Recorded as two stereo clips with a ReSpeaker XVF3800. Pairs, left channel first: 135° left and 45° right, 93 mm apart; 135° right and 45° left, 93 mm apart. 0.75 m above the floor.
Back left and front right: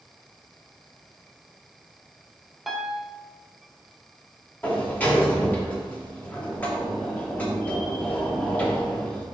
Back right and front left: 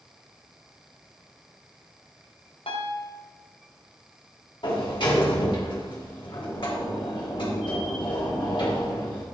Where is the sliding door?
155° right, 1.6 m.